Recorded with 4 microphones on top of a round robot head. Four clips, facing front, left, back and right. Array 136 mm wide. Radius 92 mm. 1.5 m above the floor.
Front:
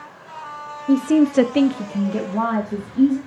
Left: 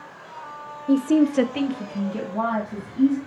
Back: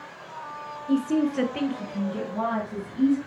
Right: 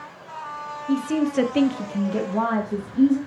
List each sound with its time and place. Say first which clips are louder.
0.9 s a woman speaking: left 4 dB, front 7 dB; 50° left, 1.0 m; by 3.2 s 55° right, 3 m